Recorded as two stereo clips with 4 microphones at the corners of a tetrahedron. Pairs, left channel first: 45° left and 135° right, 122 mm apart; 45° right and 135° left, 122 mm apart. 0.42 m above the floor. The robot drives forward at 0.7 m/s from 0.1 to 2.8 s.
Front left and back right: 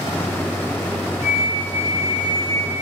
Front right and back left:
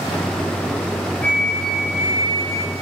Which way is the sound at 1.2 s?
30° left.